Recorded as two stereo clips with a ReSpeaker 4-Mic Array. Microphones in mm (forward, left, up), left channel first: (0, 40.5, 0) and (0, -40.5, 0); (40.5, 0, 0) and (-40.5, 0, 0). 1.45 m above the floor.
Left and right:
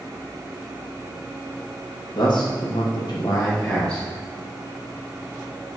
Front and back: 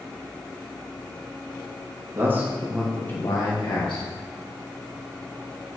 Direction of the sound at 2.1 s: 120° left.